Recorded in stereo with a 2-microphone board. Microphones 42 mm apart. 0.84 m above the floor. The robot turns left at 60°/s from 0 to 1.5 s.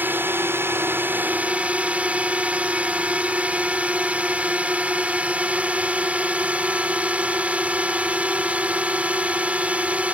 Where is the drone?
55° right; by 10.2 s 145° right.